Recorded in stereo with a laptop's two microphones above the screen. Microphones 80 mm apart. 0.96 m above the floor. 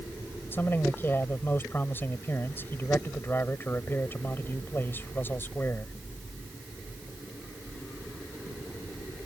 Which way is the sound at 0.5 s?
30° left (ahead or behind).